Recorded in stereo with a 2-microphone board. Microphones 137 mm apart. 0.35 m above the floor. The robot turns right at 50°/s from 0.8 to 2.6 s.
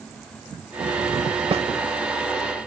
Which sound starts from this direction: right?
A snare drum, at 1.5 s.